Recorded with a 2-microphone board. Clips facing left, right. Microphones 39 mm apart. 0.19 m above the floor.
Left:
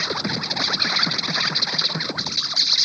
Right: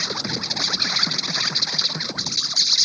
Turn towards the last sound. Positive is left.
turn(degrees=10)  # may be behind; listen again after turning